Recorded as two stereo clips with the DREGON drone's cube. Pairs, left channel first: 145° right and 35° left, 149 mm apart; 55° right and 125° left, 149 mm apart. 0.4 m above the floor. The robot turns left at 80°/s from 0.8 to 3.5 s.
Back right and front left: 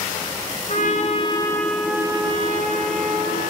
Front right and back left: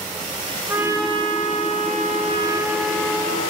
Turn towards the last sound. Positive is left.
turn(degrees=-15)